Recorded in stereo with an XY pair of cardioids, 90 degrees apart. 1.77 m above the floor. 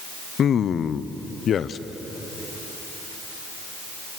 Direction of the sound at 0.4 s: 65° left.